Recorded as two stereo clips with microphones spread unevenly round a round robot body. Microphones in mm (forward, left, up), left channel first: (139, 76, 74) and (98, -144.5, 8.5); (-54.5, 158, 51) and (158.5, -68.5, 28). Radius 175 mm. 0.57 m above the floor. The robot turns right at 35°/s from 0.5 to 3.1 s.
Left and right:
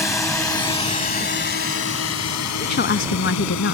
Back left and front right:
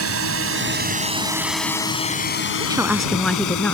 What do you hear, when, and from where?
0.0 s a drone: 5° right; by 3.7 s 110° left
2.6 s a woman speaking: 30° left; by 3.7 s 45° left